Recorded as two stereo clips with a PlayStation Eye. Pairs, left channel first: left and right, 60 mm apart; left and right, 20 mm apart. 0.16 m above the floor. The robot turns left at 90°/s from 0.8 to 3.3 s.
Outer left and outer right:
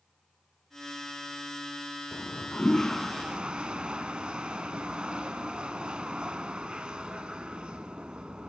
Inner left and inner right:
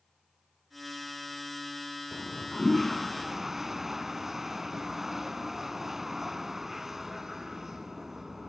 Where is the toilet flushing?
80° left, 0.5 m; by 8.5 s 30° right, 0.5 m.